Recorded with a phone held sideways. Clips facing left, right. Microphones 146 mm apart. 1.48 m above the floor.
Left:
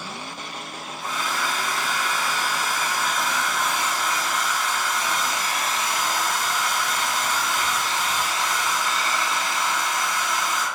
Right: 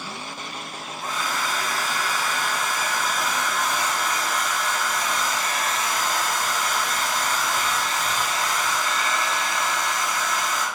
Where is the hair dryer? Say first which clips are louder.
Even; 50° right (ahead or behind), 4 m.